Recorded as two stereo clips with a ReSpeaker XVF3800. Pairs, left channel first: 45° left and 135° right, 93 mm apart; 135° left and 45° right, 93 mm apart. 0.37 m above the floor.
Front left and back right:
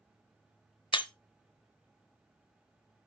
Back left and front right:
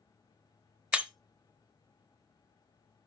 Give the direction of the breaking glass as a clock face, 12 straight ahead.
11 o'clock.